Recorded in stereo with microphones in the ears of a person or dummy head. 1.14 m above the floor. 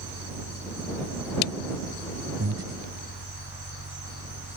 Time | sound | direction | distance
0.0 | a fan | 75° left (ahead or behind) | ?
2.4 | breathing | 75° right (ahead or behind) | ?